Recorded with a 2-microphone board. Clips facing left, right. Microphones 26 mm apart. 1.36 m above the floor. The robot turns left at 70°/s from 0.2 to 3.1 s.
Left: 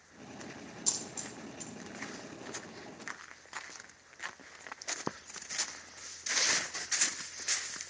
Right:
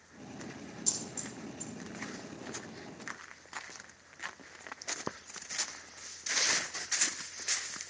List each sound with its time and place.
0.9 s a dropped coin: 15° left (ahead or behind), 1.4 m; by 1.7 s 45° left (ahead or behind), 1.4 m